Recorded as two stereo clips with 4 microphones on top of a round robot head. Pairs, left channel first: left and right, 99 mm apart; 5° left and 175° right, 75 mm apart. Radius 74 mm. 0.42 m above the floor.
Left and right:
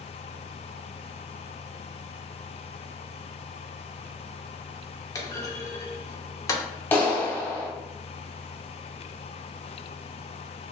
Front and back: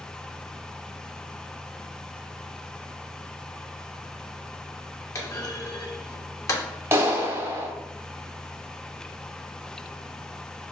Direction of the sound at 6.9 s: 150° left.